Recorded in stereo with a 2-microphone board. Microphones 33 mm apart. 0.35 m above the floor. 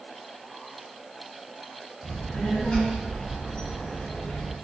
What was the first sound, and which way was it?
A child speaking, 30° left (ahead or behind).